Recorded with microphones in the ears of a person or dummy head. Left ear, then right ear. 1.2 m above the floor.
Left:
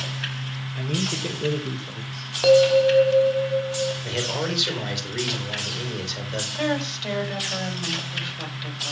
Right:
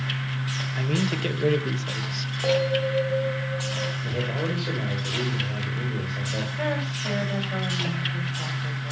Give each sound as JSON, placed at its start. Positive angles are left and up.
{"t": 0.8, "sound": "a man speaking", "side_deg": -15, "distance_m": 1.4}
{"t": 2.4, "sound": "a bell", "side_deg": 50, "distance_m": 1.6}
{"t": 4.0, "sound": "a man speaking", "side_deg": 45, "distance_m": 4.0}
{"t": 6.5, "sound": "a woman speaking", "side_deg": 30, "distance_m": 5.0}